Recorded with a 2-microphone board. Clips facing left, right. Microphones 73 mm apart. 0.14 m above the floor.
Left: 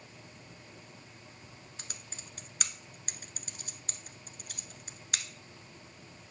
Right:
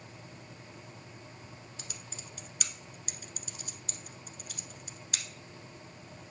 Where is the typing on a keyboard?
50° left (ahead or behind), 0.8 m.